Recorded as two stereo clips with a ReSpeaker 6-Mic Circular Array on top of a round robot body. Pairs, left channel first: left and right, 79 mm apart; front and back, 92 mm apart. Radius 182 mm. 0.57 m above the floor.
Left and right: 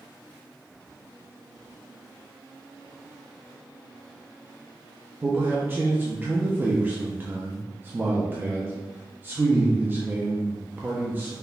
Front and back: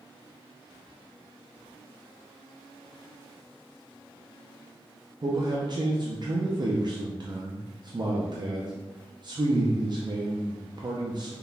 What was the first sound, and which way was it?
A man speaking, 150° right.